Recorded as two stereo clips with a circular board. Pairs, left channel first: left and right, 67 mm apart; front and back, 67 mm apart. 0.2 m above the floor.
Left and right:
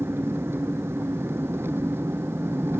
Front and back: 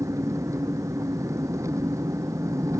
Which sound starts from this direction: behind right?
An engine running, at 0.0 s.